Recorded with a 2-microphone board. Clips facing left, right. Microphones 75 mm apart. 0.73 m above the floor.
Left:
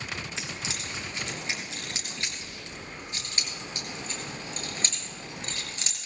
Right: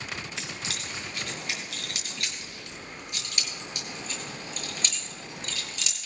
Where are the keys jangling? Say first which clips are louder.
Even; 20° left (ahead or behind), 6 m; by 6.1 s 35° left (ahead or behind), 8.5 m.